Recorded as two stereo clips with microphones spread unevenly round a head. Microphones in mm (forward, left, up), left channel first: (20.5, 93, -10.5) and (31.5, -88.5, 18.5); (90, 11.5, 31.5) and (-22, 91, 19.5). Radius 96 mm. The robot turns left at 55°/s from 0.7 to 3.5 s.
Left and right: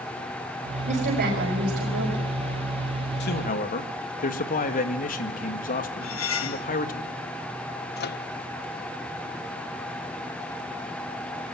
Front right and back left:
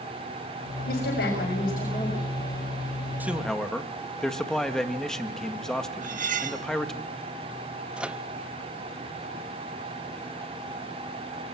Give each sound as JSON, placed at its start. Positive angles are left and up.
{"t": 0.9, "sound": "a woman speaking", "azimuth_deg": -35, "distance_m": 5.0}
{"t": 3.2, "sound": "a man speaking", "azimuth_deg": 65, "distance_m": 1.8}
{"t": 6.0, "sound": "cutlery clinking", "azimuth_deg": 120, "distance_m": 1.1}
{"t": 8.0, "sound": "a microwave", "azimuth_deg": 60, "distance_m": 0.7}